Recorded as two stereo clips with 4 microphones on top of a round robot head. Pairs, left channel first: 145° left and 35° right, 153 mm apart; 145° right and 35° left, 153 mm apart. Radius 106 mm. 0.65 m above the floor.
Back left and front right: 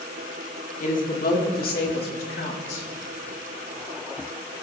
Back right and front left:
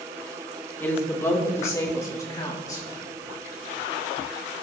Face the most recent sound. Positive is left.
turn(degrees=150)